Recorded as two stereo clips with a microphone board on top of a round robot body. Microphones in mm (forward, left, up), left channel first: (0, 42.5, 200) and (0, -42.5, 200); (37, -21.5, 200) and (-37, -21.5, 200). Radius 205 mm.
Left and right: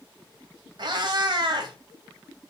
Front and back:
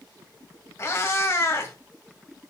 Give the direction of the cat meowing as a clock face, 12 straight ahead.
2 o'clock.